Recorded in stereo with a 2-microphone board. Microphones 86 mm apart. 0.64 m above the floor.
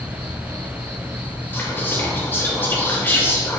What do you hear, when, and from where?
0.0 s an insect: 75° right (ahead or behind), 2.5 m
1.5 s whispering: 25° left (ahead or behind), 2 m